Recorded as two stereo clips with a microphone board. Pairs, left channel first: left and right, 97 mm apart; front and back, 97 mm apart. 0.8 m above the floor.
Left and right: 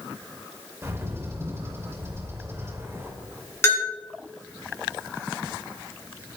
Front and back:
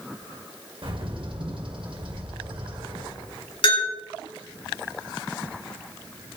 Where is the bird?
150° right, 2.5 m.